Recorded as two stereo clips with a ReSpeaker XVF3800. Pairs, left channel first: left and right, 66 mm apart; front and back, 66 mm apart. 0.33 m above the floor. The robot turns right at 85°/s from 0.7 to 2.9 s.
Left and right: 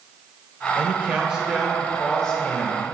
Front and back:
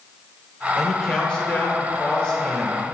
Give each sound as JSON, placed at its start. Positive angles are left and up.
{"t": 0.8, "sound": "a man speaking", "azimuth_deg": -90, "distance_m": 0.8}